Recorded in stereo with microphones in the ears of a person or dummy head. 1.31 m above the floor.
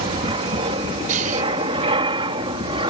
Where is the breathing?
50° right (ahead or behind).